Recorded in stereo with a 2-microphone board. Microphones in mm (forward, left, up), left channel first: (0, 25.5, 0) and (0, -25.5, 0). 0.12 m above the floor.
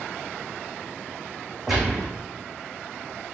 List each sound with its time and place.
1.7 s a gunshot: 5° right (ahead or behind), 4 m